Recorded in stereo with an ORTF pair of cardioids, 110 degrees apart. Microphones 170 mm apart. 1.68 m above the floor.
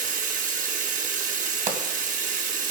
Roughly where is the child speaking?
No child speaking in this recording.